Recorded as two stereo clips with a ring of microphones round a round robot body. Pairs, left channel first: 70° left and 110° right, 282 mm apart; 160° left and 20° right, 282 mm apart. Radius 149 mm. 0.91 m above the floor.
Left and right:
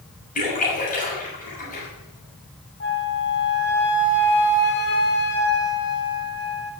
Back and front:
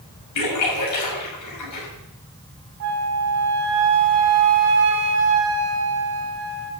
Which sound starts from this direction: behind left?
A splash, at 0.3 s.